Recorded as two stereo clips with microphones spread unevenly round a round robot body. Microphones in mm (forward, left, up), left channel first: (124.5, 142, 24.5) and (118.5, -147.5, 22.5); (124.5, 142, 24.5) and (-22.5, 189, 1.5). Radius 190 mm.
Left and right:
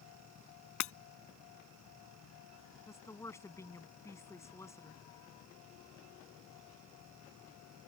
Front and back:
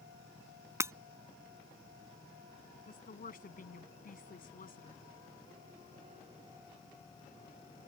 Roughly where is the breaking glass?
Left.